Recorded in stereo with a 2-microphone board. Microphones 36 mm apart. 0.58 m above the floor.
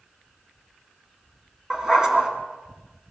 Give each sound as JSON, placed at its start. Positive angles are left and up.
{"t": 1.7, "sound": "a dog barking", "side_deg": -15, "distance_m": 2.0}